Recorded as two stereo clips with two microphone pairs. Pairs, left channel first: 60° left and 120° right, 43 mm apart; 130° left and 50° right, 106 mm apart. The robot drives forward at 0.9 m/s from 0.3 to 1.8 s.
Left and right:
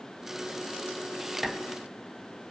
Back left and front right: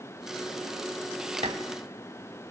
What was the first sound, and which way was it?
Dishes clattering, 35° right.